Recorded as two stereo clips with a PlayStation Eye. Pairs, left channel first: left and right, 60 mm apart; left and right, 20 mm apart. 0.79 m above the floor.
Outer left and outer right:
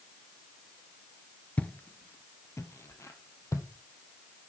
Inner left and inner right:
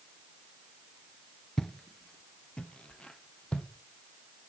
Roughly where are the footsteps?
Left.